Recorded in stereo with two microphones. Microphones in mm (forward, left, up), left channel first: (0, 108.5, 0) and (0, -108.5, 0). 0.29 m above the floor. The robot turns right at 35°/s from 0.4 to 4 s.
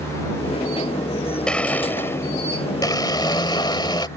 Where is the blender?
5° left (ahead or behind); by 4.1 s 20° left (ahead or behind).